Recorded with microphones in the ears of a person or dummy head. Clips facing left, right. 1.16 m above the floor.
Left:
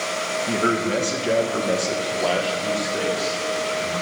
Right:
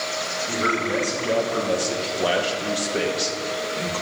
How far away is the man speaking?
About 1.4 m.